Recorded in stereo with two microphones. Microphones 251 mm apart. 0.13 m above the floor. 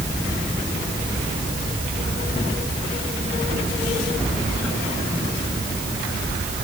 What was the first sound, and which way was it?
Only background noise.